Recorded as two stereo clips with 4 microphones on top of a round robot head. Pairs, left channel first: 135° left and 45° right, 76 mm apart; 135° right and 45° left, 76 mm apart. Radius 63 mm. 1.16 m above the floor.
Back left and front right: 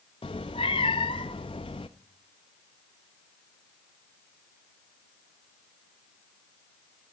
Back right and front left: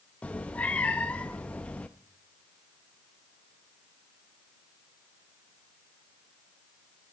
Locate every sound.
0.2 s a cat meowing: 155° left, 0.5 m